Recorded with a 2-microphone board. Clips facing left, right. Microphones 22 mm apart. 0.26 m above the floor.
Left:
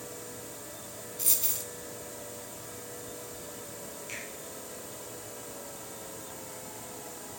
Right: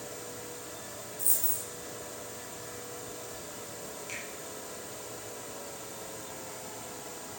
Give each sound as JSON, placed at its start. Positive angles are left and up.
{"t": 1.2, "sound": "a dropped coin", "side_deg": 70, "distance_m": 0.6}
{"t": 4.1, "sound": "a finger snap", "side_deg": 0, "distance_m": 5.0}